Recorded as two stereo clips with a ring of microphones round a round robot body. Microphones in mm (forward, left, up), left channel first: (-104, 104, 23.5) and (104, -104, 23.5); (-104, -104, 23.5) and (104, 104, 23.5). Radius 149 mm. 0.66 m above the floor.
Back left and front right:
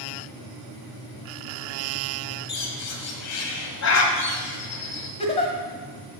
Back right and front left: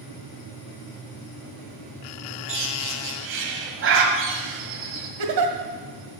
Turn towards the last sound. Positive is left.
turn(degrees=65)